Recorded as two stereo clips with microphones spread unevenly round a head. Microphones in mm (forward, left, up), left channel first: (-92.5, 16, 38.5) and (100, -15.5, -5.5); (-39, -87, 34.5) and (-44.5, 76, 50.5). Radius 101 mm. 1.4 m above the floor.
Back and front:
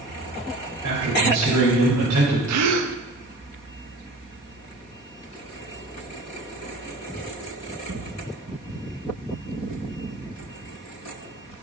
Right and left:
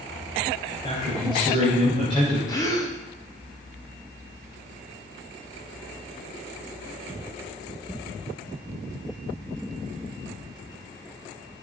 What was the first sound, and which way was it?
A man speaking, 20° right.